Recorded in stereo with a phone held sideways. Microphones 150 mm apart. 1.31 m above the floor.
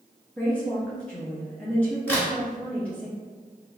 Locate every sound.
0.4 s a woman speaking: 10° left (ahead or behind), 0.7 m
2.1 s a crack: 10° left (ahead or behind), 1.1 m